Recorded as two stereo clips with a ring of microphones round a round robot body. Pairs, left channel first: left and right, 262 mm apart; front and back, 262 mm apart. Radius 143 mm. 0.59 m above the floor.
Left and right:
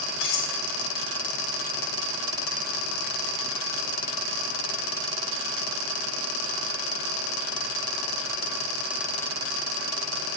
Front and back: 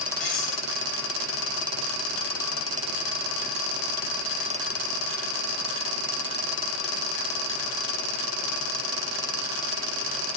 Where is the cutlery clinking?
85° left, 1.6 m.